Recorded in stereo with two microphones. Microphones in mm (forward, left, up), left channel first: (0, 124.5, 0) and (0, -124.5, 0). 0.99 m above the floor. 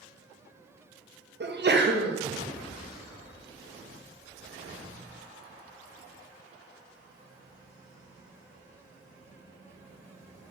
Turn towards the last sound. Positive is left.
turn(degrees=-45)  # may be behind; listen again after turning